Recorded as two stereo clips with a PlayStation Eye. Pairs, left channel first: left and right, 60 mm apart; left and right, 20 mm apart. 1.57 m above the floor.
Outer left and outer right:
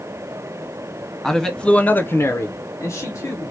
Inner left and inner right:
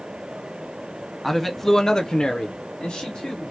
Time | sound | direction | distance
1.2 | a man speaking | 5° left (ahead or behind) | 0.9 m